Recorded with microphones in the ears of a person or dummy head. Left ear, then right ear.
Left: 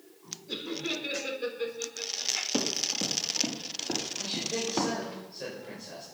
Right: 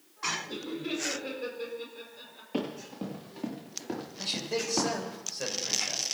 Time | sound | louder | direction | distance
0.5 | laughter | left 2 dB | 20° left (ahead or behind) | 5 m
2.5 | running footsteps | left 7 dB | 20° left (ahead or behind) | 6 m
4.2 | a man speaking | even | 40° right (ahead or behind) | 6 m